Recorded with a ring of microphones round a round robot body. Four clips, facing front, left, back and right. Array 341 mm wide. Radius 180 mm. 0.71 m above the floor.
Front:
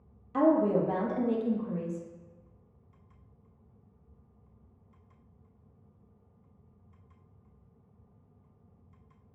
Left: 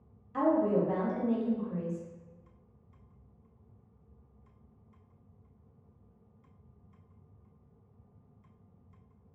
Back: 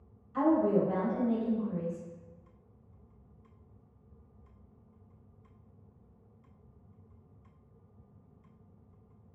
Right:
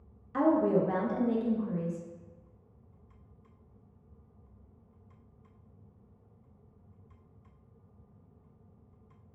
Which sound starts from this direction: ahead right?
A woman speaking, at 0.3 s.